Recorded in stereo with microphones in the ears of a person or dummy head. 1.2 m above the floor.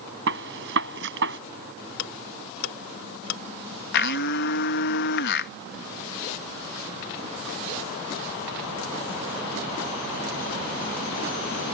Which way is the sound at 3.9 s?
60° left (ahead or behind).